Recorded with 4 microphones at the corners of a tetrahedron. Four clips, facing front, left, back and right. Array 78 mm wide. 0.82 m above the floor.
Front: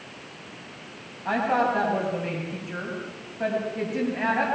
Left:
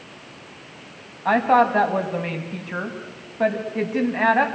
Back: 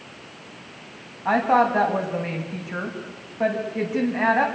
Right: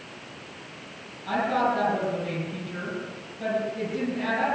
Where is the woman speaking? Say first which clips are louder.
Left 8 dB, back 4 dB; 115° left, 6 m.